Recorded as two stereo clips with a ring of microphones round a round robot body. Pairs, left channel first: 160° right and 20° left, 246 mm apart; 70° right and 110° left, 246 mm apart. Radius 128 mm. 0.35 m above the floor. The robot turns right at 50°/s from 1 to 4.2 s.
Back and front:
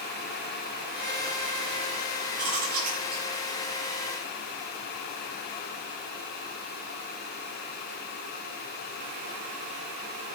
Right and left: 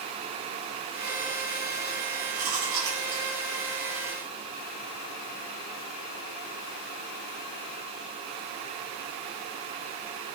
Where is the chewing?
50° left, 9 m; by 3.3 s 100° left, 9 m.